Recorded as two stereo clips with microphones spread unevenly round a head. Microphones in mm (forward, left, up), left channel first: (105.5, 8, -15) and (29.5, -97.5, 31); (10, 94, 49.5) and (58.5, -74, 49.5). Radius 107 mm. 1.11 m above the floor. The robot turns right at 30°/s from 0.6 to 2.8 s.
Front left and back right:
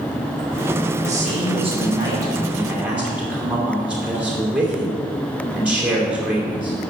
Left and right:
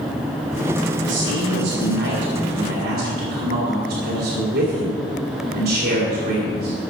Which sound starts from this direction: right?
A man speaking, at 1.0 s.